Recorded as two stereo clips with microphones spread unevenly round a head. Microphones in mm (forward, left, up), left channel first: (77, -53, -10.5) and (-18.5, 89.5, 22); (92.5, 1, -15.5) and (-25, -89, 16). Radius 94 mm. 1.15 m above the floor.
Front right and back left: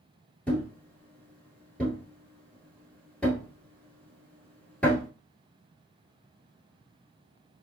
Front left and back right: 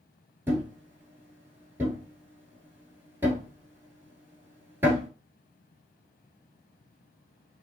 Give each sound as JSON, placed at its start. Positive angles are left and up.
{"t": 0.5, "sound": "a thud", "azimuth_deg": -155, "distance_m": 1.2}